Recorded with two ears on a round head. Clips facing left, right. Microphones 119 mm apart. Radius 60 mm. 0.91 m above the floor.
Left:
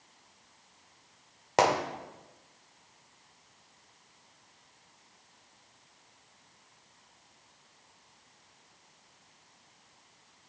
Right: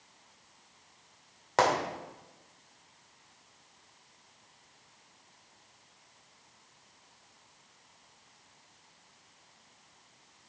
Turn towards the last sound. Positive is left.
turn(degrees=20)  # may be behind; listen again after turning